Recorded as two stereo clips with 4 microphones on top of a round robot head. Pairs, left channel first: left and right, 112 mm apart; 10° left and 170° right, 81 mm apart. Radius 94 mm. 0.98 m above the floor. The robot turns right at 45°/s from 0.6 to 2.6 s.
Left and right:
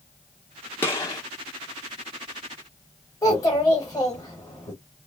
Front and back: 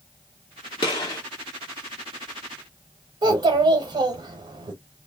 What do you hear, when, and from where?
0.8 s a gunshot: 25° left, 0.7 m; by 1.2 s 40° left, 0.7 m
3.2 s a child speaking: 160° left, 0.8 m